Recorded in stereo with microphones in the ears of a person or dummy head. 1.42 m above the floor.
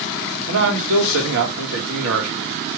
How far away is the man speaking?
About 1.4 m.